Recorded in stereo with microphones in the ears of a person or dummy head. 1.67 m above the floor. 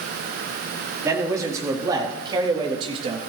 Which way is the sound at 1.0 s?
15° right (ahead or behind).